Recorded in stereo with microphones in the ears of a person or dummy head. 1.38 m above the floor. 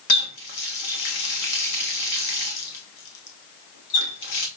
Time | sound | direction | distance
0.1 | a running tap | 65° left (ahead or behind) | 1.4 m